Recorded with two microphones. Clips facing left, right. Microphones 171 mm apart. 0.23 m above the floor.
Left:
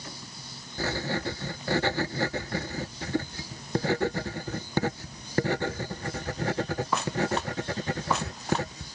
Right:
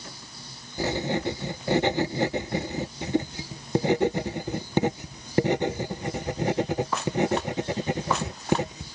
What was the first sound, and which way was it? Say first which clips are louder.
Writing: right 4 dB; 20° right (ahead or behind).